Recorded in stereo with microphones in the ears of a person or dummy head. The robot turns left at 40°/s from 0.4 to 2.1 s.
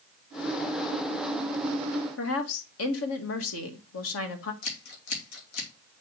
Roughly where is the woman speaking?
Left.